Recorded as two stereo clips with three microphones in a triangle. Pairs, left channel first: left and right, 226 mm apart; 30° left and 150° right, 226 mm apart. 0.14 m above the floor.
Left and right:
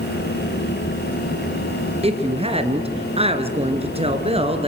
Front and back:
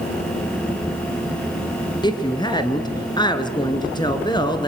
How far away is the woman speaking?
About 2.5 m.